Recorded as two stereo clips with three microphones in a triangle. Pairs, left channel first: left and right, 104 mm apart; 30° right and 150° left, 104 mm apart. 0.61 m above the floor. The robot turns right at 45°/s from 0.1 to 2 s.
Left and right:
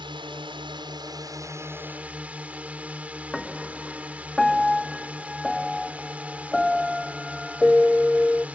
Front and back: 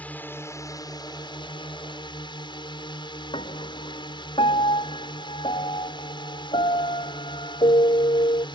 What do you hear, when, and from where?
0.0 s a drone: 100° right; by 8.6 s 15° right
3.3 s a piano: straight ahead